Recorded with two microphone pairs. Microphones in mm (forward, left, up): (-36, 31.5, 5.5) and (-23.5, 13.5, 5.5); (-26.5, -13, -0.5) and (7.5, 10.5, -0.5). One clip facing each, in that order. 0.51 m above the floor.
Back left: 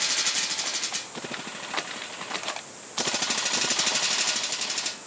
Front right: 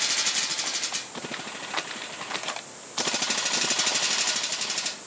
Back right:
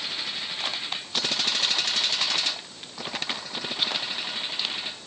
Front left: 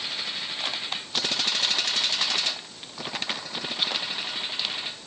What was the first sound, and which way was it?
Only background noise.